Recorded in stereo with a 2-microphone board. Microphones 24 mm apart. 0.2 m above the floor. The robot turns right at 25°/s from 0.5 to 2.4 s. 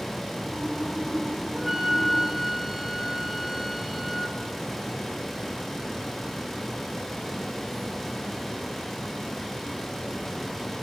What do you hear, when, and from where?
1.5 s a flute: 15° right (ahead or behind), 2.5 m; by 4.4 s centre (ahead or behind), 2.5 m